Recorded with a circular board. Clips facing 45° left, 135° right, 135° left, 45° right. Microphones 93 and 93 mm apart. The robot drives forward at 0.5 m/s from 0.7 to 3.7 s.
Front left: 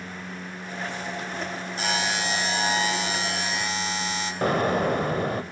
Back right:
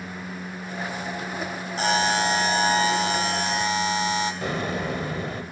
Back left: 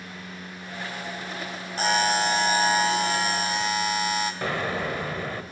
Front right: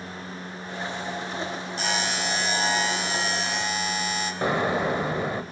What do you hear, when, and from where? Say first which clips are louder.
1.8 s a buzzer: back right 6 dB, back left 7 dB; 175° left, 1.4 m; by 4.3 s straight behind, 2.5 m
4.4 s an explosion: front left 5 dB, front right 4 dB; 20° left, 0.9 m